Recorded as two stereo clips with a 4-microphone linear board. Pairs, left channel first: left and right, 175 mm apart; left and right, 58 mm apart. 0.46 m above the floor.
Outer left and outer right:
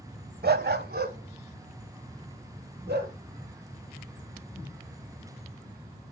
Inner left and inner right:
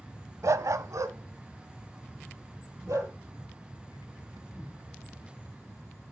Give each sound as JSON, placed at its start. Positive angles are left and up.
{"t": 0.4, "sound": "a dog barking", "side_deg": -75, "distance_m": 0.7}